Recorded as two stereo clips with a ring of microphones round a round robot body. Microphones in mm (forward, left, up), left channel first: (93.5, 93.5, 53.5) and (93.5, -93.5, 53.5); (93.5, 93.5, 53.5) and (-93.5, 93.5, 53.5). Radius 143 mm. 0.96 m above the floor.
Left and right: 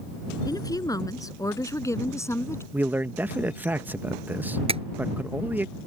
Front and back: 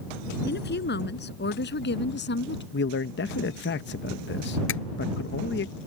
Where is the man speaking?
10° right.